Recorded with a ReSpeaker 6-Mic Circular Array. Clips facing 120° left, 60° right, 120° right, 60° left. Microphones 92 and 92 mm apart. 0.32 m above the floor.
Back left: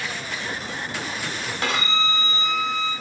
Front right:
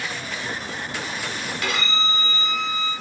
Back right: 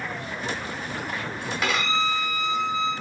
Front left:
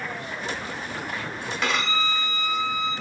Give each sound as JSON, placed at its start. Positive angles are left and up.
{"t": 1.6, "sound": "a violin", "azimuth_deg": 155, "distance_m": 1.4}